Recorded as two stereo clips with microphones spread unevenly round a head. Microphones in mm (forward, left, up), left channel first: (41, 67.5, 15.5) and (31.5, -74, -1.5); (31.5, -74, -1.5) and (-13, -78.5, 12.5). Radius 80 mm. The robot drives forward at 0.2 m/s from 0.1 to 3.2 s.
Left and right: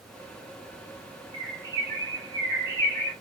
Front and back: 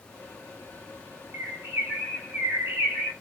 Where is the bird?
155° right, 1.2 m; by 3.1 s 160° right, 1.5 m.